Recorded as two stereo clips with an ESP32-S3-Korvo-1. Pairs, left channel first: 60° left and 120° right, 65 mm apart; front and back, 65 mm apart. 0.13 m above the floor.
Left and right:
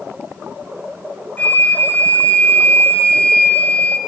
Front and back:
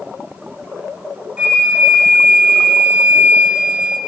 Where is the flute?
115° left, 0.8 m.